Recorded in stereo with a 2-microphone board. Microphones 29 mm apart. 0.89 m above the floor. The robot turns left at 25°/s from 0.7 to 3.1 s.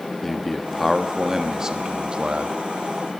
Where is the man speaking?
5° left, 1.4 m; by 2.5 s 40° right, 1.4 m.